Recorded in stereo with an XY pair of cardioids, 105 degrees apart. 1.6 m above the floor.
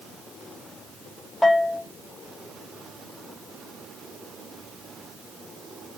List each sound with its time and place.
1.4 s a bell: 25° left, 1.3 m